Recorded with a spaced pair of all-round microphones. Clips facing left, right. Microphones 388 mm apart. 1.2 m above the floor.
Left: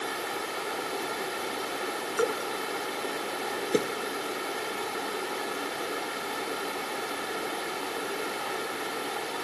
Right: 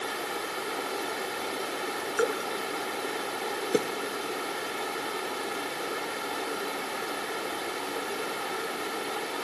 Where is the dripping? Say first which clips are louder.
Even; 5° left (ahead or behind).